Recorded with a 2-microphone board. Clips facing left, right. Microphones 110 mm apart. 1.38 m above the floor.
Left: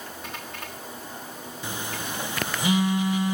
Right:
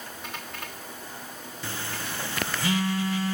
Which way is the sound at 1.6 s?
20° left (ahead or behind).